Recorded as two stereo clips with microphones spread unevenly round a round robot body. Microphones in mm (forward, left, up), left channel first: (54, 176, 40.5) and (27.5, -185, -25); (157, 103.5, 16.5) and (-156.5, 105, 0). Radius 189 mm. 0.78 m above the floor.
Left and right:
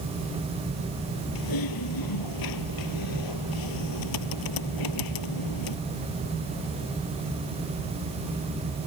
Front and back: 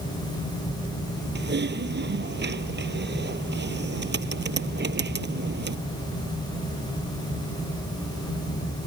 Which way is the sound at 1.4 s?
125° left.